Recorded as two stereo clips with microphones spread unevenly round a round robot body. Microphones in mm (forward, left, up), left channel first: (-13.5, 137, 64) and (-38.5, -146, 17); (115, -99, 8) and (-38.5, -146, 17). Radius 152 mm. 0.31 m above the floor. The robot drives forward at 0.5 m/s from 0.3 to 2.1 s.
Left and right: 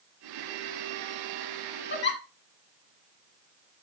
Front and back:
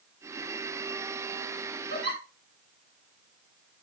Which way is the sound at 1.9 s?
140° left.